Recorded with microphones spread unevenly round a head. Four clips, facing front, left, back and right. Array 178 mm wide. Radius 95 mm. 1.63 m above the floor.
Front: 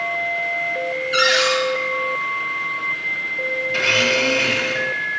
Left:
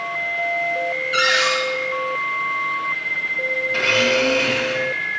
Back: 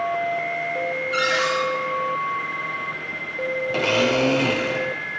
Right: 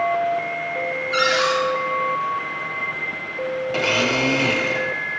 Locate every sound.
1.1 s a cupboard door: 145° right, 2.5 m
3.7 s a blender: 155° right, 0.6 m